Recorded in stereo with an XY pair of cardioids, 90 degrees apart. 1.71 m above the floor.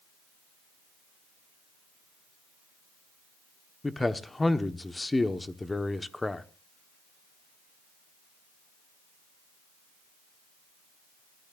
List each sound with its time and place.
3.8 s a man speaking: 20° left, 1.2 m